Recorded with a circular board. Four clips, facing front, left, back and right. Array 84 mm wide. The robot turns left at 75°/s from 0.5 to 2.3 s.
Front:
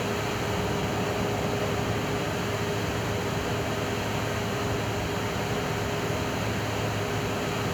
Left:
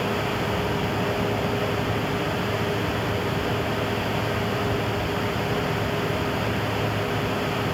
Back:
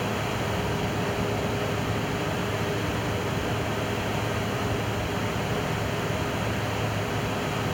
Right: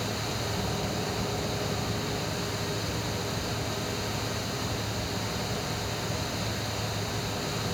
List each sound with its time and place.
Only background noise.